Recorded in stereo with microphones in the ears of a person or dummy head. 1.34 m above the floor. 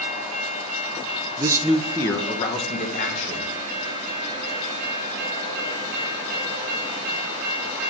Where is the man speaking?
35° right (ahead or behind), 0.5 m; by 3.5 s 40° left (ahead or behind), 1.9 m.